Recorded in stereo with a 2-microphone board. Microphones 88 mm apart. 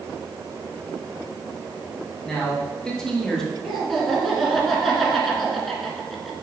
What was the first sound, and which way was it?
A man speaking, 10° left (ahead or behind).